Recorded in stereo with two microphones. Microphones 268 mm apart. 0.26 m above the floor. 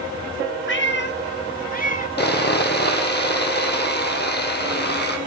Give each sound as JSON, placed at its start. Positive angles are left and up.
{"t": 0.7, "sound": "a cat meowing", "side_deg": 45, "distance_m": 0.8}
{"t": 2.2, "sound": "sawing", "side_deg": 40, "distance_m": 1.9}